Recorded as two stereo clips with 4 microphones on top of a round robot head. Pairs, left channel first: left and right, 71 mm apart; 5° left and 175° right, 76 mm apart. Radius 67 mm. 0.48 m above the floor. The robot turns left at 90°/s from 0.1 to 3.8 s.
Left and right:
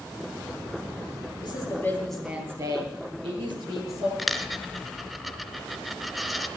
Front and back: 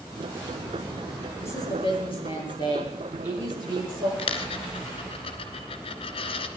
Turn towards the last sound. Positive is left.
turn(degrees=0)